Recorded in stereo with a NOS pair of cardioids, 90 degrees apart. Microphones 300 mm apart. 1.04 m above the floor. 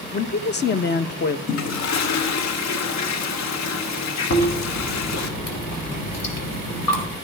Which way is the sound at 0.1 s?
35° left.